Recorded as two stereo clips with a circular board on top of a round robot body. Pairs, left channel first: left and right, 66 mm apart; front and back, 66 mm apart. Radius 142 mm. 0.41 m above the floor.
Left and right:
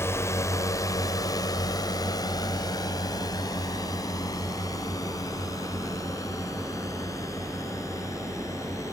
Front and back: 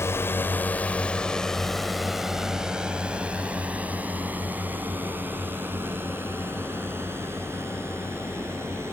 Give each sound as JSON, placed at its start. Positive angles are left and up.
{"t": 0.0, "sound": "a drone", "azimuth_deg": 45}